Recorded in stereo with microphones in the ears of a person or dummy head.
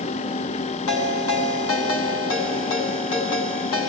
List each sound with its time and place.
0.9 s a ringtone: 80° left, 7.5 m